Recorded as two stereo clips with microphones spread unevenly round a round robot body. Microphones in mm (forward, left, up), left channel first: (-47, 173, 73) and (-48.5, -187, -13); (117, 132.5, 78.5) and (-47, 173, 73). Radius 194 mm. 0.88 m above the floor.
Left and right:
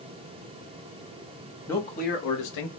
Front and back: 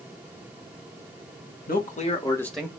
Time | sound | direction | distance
1.7 | a man speaking | 5° right | 1.5 m